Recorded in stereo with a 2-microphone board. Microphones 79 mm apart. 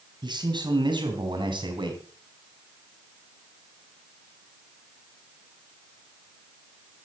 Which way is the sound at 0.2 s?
65° right (ahead or behind).